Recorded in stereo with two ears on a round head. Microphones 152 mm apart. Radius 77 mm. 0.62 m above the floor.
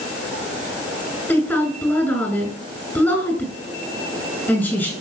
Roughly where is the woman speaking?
Centre.